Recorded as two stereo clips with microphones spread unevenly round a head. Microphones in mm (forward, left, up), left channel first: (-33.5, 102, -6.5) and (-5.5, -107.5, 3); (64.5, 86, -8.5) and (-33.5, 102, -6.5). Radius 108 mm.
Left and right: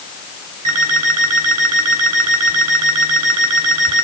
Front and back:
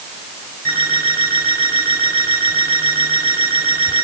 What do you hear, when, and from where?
0.7 s an alarm clock: 85° right, 8 m